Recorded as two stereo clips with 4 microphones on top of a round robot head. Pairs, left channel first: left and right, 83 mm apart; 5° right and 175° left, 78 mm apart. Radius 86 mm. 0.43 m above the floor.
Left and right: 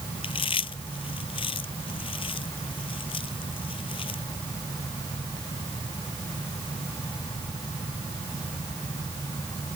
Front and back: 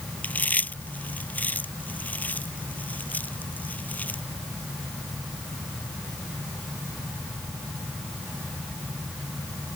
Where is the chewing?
65° left.